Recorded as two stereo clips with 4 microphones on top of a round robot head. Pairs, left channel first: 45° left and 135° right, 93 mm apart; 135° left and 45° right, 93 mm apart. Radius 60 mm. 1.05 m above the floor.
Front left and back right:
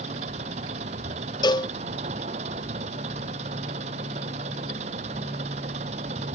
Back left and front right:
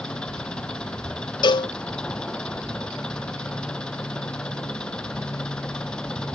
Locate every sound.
0.0 s an engine running: 140° right
1.4 s a cowbell: 90° left